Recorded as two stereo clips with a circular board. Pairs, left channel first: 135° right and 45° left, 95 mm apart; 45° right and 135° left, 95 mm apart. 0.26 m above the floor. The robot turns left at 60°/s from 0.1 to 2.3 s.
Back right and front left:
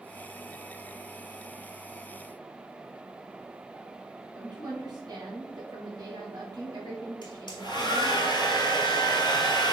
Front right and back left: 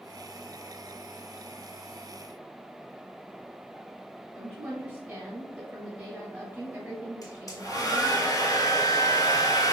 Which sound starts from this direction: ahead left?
A woman speaking, at 4.3 s.